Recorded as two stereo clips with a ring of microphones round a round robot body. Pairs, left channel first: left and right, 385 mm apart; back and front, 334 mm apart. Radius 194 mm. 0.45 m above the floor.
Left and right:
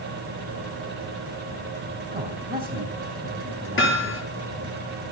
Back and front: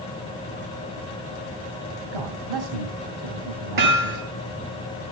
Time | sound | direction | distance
2.1 | a man speaking | 15° right | 2.5 m
3.8 | hammering | 30° left | 6.5 m